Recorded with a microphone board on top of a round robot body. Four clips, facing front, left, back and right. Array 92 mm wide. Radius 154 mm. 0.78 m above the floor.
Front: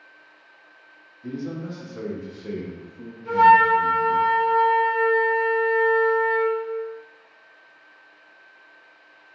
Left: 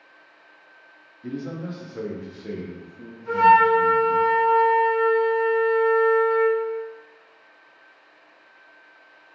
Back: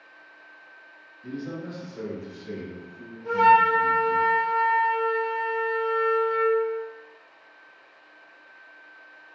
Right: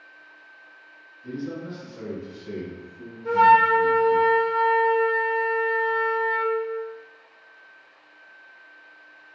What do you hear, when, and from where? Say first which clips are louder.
1.2 s a man speaking: left 1 dB, front 3 dB; 80° left, 1.2 m; by 4.2 s 5° right, 1.4 m
3.2 s a flute: left 1 dB, front 3 dB; 105° right, 0.7 m